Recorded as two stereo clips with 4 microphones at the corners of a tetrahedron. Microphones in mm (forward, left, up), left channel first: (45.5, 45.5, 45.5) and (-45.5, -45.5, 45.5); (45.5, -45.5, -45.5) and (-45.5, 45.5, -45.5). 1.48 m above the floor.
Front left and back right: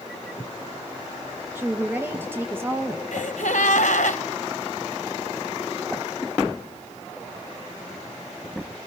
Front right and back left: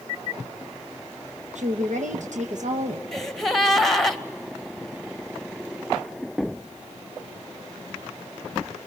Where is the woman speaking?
155° left, 1.2 m.